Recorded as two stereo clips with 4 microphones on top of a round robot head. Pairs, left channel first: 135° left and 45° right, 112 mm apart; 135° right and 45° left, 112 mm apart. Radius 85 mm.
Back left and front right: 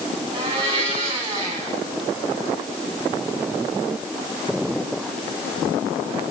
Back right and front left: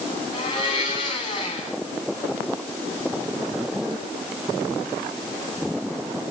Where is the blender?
85° right, 7.5 m.